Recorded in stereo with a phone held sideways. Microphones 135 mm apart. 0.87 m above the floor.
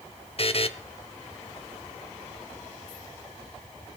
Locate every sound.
0.4 s a buzzer: 45° left (ahead or behind), 0.8 m